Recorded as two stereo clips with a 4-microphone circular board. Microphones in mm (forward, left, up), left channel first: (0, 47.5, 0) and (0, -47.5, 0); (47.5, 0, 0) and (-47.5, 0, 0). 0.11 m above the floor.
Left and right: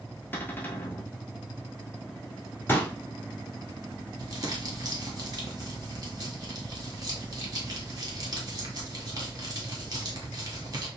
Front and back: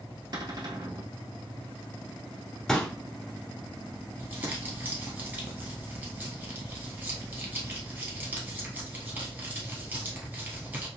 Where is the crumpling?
120° right, 1.6 m.